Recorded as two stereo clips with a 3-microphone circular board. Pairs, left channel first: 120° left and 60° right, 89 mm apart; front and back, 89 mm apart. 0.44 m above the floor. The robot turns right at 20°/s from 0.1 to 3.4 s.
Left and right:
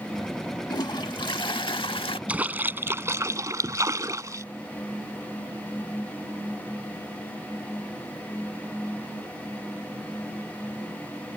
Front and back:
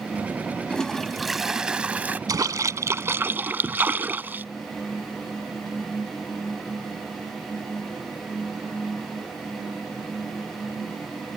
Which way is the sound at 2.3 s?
135° right.